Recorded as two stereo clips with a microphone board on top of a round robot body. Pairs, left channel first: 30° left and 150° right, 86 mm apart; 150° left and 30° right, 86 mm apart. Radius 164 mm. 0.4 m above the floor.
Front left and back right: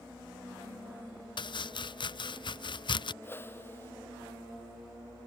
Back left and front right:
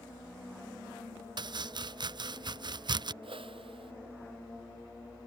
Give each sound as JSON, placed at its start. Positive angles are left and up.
{"t": 1.4, "sound": "chopping", "azimuth_deg": 0}
{"t": 3.2, "sound": "a whoosh", "azimuth_deg": -35}